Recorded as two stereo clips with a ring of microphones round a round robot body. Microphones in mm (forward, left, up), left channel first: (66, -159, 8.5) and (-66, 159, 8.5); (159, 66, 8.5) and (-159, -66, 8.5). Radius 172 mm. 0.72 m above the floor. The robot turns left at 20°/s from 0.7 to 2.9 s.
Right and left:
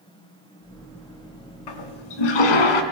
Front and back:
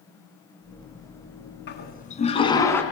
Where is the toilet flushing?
40° right, 3.5 m; by 2.8 s 60° right, 3.5 m.